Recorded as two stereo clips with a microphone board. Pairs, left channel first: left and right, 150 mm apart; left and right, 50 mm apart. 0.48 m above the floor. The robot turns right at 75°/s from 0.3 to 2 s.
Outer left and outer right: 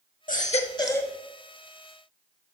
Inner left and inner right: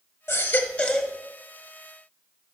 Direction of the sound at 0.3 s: 115° left.